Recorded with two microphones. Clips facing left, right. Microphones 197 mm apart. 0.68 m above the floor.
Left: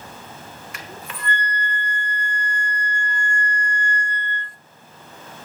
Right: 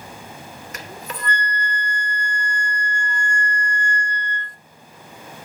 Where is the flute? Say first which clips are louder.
Right 4 dB; 40° right (ahead or behind), 1.2 m.